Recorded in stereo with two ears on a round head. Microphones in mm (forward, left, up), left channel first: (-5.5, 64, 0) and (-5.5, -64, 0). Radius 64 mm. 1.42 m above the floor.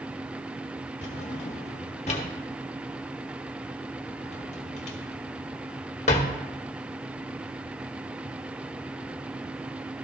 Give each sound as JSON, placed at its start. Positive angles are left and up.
{"t": 1.0, "sound": "a drawer", "side_deg": 50, "distance_m": 1.4}